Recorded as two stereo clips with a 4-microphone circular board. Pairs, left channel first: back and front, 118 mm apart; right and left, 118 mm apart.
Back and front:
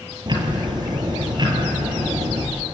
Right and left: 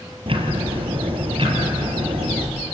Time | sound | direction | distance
0.3 | ticking | 50° left | 2.5 m